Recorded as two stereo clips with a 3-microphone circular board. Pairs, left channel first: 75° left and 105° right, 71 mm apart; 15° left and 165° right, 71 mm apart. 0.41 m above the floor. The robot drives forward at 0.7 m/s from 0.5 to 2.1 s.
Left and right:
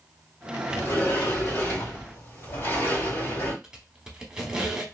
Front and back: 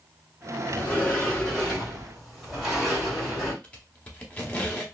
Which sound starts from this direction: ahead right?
A squeak, at 3.6 s.